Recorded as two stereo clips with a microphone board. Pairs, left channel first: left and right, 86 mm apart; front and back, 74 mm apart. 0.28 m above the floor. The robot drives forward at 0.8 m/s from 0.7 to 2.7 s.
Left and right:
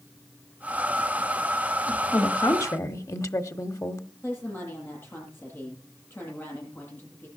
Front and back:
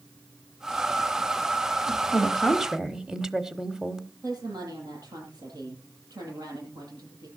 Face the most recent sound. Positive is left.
turn(degrees=155)